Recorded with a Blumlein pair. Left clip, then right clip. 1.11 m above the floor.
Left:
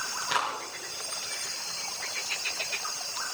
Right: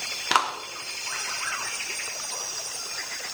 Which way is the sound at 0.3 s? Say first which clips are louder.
Right 6 dB; 30° right.